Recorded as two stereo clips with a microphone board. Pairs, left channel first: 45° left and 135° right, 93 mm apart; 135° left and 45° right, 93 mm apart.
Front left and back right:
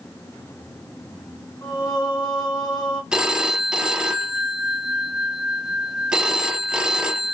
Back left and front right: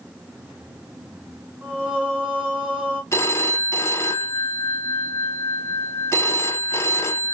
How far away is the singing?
About 2.5 m.